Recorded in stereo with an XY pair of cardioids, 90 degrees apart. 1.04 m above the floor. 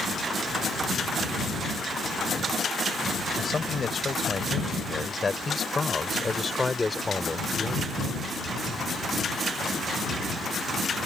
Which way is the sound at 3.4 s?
40° left.